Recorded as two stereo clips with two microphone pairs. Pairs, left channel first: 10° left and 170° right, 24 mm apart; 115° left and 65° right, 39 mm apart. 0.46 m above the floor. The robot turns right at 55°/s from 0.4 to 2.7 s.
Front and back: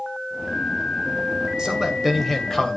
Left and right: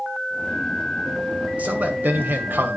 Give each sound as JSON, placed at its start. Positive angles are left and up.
{"t": 1.6, "sound": "a man speaking", "azimuth_deg": -110, "distance_m": 2.0}